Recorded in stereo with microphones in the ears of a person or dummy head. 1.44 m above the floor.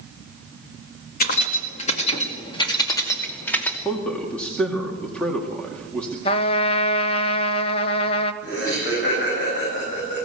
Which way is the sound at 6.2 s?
30° left (ahead or behind).